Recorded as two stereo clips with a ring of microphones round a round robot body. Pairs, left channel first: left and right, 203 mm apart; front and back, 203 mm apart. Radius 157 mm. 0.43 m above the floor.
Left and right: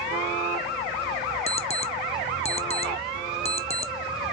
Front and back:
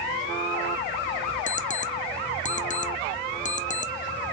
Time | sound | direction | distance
1.5 | an alarm clock | 40° left | 0.7 m